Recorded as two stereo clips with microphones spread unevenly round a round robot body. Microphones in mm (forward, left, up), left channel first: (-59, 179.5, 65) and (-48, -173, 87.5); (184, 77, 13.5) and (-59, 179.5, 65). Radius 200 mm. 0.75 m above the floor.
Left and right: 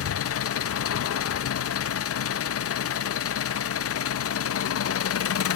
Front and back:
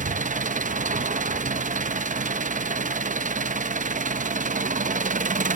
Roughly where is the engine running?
Left.